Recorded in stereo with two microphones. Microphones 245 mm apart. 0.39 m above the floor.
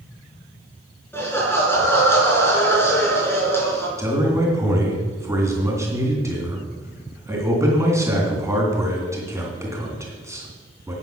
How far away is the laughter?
About 4.5 m.